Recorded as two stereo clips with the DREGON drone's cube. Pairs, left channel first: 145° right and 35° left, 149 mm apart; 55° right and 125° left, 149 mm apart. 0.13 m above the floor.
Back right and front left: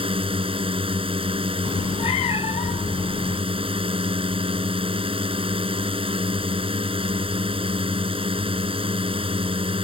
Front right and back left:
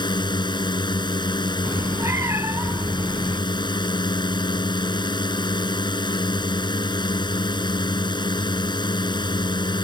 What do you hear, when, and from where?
0.0 s a drone: 5° right
1.6 s a cat meowing: 170° right